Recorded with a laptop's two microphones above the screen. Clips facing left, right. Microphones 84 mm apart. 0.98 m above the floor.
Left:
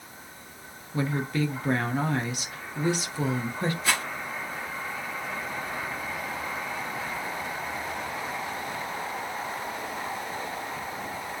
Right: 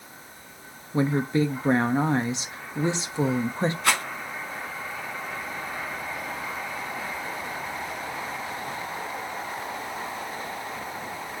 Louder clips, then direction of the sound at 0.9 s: Right 5 dB; 25° right (ahead or behind).